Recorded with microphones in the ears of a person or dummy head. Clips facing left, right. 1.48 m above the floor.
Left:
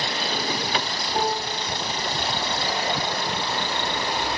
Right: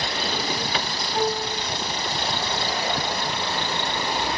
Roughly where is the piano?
Left.